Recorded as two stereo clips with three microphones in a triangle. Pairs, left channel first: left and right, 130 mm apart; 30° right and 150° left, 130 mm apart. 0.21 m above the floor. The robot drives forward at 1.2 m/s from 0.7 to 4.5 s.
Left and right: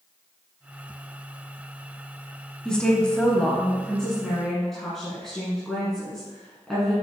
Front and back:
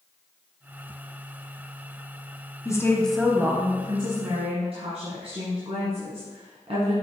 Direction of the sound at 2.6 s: 10° left.